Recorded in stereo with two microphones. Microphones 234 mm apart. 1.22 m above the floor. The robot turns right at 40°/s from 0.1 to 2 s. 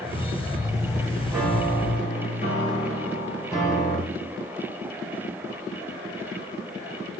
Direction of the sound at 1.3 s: 5° right (ahead or behind).